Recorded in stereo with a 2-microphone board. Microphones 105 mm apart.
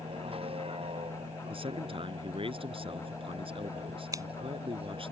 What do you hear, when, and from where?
0.0 s a vehicle: 60° right (ahead or behind)
1.5 s a man speaking: 55° right (ahead or behind)
4.1 s scissors: 35° right (ahead or behind)